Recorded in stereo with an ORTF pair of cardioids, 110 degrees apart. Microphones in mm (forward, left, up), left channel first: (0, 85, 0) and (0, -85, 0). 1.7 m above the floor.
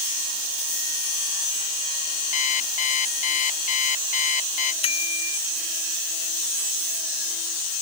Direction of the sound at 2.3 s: 45° left.